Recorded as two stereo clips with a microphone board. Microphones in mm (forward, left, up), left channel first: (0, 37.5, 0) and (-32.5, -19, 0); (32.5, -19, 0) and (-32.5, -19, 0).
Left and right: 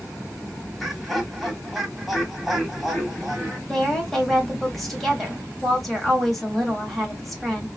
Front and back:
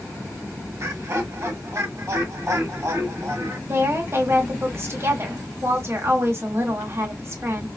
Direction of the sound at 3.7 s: 145° left.